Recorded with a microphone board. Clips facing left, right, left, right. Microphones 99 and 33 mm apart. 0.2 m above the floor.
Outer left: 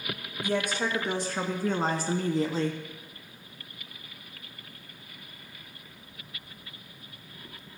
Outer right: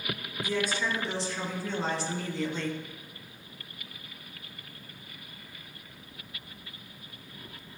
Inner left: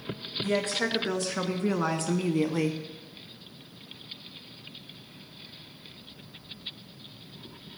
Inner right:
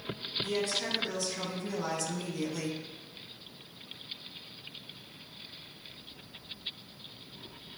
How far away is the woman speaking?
About 2.5 m.